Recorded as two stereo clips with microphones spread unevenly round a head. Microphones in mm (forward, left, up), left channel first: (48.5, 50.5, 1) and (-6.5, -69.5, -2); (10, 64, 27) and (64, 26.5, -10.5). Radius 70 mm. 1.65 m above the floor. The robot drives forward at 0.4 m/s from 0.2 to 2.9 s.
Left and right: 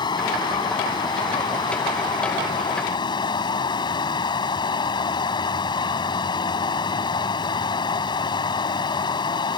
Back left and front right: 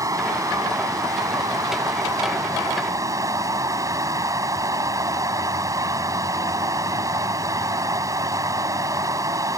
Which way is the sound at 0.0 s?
5° left.